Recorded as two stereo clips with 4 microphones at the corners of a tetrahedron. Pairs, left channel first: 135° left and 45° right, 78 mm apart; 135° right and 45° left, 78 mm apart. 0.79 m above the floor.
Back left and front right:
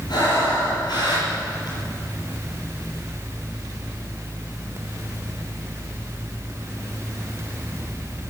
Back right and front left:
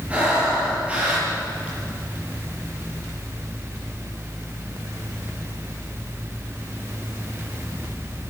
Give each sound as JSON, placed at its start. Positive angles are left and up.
{"t": 0.1, "sound": "breathing", "azimuth_deg": 115, "distance_m": 7.5}